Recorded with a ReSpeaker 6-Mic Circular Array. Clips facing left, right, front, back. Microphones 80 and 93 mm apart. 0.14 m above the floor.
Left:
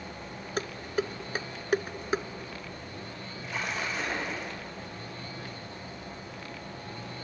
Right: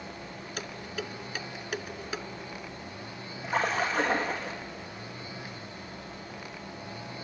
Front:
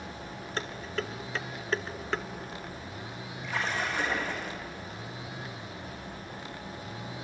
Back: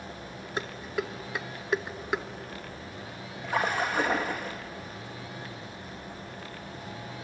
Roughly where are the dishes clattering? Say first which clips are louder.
Left 7 dB, back 2 dB; left.